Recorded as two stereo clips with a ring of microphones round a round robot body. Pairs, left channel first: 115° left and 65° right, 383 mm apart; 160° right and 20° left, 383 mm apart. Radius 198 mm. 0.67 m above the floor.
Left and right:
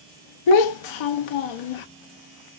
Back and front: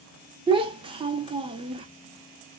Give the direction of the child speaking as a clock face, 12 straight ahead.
9 o'clock.